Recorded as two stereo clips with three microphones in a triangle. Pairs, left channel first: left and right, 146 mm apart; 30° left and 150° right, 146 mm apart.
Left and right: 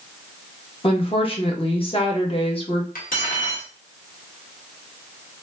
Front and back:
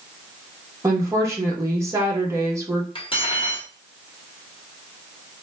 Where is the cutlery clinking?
80° left, 0.9 m.